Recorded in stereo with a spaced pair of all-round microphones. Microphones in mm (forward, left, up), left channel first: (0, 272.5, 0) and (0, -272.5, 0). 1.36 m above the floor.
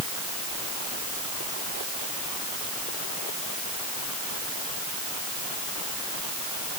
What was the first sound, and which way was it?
Only background noise.